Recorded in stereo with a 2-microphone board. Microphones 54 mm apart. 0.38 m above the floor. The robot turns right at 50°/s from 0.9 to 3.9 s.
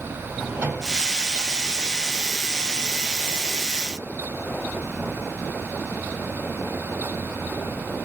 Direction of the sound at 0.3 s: 35° right (ahead or behind).